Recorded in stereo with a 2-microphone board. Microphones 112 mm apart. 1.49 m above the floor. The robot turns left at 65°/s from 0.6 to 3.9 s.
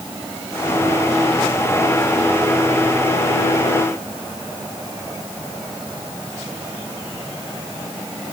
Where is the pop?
No pop in this recording.